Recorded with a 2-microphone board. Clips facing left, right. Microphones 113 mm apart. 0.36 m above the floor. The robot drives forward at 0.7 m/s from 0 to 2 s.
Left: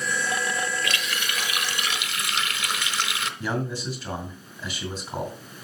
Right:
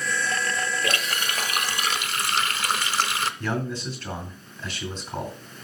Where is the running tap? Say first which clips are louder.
Right 2 dB; 40° right (ahead or behind), 1.0 m; by 3.3 s 35° right (ahead or behind), 1.1 m.